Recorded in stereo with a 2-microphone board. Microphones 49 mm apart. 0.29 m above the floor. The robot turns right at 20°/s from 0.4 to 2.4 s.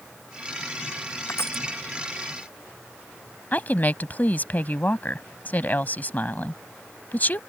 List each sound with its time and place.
1.3 s crushing: 60° left (ahead or behind); by 1.6 s 55° left (ahead or behind)
3.5 s a woman speaking: 35° left (ahead or behind)